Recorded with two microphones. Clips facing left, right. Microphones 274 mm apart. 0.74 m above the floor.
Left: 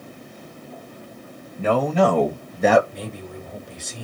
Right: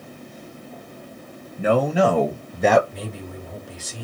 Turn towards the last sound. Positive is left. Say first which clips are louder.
# even
turn(degrees=-5)  # may be behind; listen again after turning